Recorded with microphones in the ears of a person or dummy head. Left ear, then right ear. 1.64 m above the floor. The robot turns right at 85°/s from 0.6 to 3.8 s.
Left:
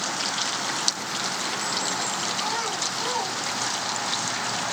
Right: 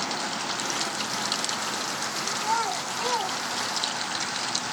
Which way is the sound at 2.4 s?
30° right (ahead or behind).